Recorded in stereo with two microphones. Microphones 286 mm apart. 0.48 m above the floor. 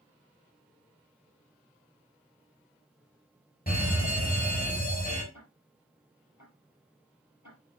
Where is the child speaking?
No child speaking in this recording.